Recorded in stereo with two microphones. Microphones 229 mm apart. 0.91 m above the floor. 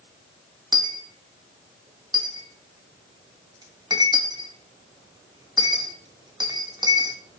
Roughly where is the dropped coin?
Centre.